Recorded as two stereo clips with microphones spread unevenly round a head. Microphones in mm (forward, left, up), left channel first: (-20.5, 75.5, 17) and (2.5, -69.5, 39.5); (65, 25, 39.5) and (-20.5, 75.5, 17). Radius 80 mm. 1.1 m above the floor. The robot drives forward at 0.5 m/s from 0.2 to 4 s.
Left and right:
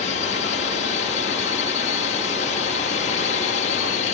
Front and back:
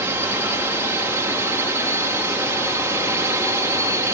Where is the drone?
95° left.